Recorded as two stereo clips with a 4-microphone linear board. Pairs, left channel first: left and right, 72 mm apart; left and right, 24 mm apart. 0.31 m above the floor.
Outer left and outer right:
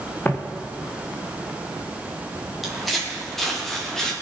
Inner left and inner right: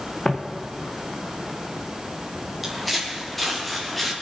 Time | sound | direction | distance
0.2 | footsteps | 30° left (ahead or behind) | 2 m
2.6 | footsteps | centre (ahead or behind) | 4.5 m